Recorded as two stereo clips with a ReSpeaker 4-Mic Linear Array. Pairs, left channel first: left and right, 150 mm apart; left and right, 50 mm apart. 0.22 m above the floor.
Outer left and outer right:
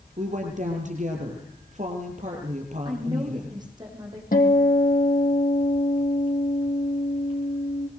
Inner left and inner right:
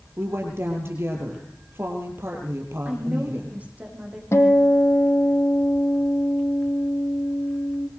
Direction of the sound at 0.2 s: 55° right (ahead or behind).